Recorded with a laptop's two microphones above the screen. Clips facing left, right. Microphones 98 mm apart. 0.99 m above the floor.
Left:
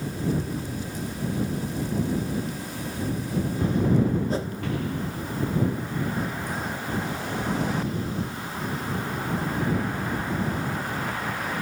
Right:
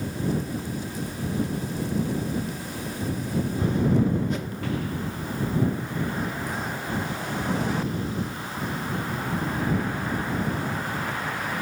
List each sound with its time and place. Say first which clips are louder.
4.3 s a whoosh: left 2 dB; 30° left (ahead or behind)